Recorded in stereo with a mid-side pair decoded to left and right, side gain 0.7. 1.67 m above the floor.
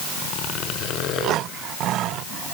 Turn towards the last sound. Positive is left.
No sound to turn to.